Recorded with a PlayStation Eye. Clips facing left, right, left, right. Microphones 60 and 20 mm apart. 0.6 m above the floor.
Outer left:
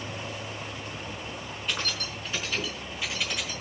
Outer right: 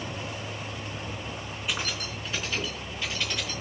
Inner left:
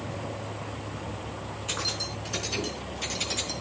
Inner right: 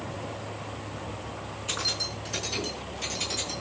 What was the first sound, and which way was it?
Keys jangling, 5° right (ahead or behind).